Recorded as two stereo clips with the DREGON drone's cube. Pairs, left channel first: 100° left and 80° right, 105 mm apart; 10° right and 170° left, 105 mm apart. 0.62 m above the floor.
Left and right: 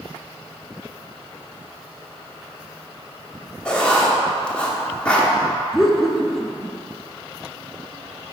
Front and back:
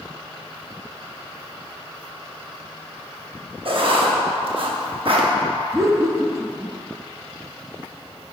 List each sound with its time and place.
3.6 s writing: straight behind, 0.7 m
5.7 s laughter: 170° right, 0.6 m